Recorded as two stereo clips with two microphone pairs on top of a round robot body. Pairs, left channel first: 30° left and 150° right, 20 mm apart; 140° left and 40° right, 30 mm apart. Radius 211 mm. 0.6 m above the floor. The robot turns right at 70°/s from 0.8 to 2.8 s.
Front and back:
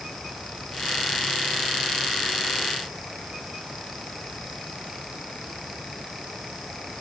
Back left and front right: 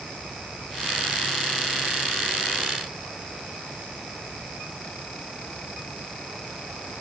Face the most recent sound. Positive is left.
No sound to turn to.